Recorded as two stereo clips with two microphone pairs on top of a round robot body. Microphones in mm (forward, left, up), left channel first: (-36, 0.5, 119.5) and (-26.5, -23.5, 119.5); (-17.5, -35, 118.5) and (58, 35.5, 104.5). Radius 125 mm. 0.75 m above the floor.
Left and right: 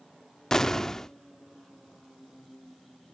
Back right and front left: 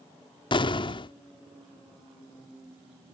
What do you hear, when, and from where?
0.5 s an explosion: straight behind